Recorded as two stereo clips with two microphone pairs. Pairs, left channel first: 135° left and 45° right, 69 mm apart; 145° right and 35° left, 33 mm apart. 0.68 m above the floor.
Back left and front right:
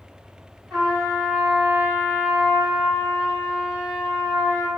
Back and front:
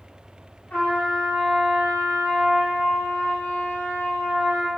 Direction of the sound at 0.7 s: 135° right.